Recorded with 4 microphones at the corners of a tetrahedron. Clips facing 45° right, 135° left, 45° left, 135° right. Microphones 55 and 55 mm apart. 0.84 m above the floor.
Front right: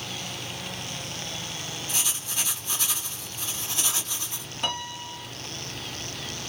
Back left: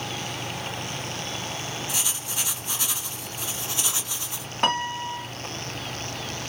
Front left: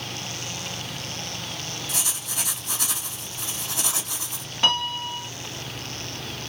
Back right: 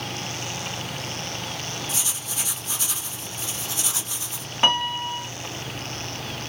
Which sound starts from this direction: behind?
A piano, at 4.6 s.